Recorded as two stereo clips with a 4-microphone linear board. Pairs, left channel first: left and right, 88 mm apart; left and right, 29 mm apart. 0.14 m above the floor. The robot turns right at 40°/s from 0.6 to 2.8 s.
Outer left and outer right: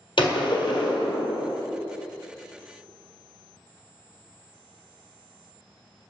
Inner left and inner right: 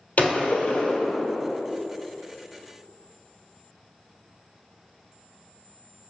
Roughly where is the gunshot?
Left.